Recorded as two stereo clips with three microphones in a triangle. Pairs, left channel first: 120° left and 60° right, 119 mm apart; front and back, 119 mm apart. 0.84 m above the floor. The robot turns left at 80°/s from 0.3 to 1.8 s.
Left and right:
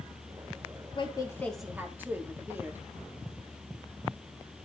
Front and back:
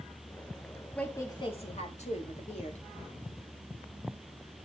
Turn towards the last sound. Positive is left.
turn(degrees=15)